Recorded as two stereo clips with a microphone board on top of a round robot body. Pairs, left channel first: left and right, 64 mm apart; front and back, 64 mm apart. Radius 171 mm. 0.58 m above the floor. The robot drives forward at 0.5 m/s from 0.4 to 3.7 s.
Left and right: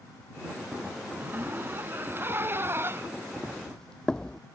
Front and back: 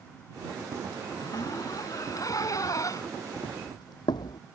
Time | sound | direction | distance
1.1 | a zipper | 30° right | ?
3.4 | footsteps | 5° left | ?